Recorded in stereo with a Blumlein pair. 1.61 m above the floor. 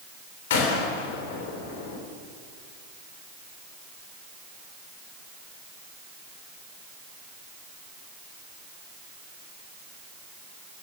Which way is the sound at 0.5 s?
55° left.